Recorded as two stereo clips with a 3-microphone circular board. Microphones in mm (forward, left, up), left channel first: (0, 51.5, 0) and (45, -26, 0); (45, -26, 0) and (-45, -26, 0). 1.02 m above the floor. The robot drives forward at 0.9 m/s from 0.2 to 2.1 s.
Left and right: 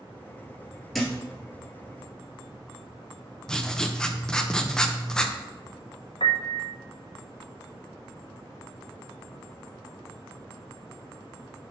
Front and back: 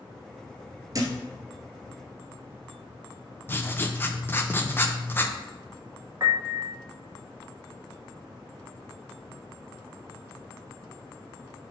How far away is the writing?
About 0.6 m.